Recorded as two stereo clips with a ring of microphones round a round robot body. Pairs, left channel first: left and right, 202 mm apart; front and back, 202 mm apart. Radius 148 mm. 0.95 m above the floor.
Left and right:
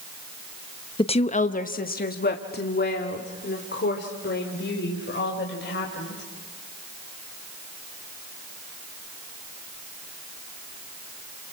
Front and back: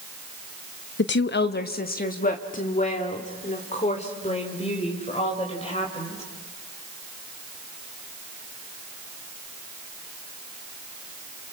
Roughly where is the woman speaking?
Ahead left.